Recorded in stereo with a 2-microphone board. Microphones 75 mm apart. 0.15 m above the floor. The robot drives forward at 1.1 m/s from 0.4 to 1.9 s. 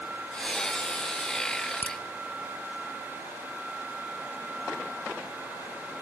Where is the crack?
25° left (ahead or behind), 1.7 m.